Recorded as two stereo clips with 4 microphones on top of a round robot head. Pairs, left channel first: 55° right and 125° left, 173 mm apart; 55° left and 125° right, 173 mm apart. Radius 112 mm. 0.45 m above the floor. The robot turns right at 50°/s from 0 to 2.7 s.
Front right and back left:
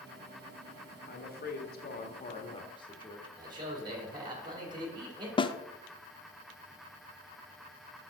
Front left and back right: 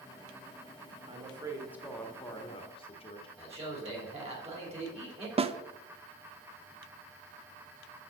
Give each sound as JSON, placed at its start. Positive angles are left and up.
{"t": 1.1, "sound": "a woman speaking", "azimuth_deg": -80, "distance_m": 1.3}
{"t": 3.4, "sound": "a man speaking", "azimuth_deg": -175, "distance_m": 2.5}
{"t": 5.4, "sound": "a snare drum", "azimuth_deg": -100, "distance_m": 0.6}